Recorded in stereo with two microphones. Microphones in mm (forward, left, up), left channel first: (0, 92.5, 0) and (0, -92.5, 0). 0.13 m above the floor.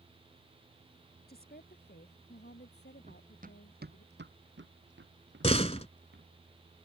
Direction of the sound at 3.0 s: 40° right (ahead or behind).